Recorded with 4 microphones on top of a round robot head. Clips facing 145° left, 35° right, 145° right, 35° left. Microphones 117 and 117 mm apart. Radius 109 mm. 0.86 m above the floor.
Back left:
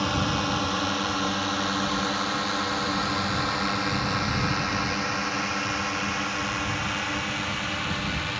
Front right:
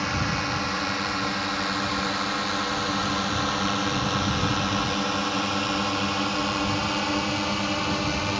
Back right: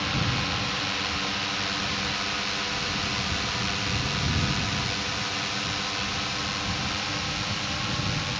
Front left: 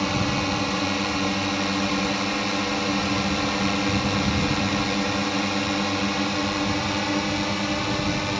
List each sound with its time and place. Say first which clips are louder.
0.0 s a drone: back left 2 dB, front left 6 dB; 70° left; by 8.4 s 15° left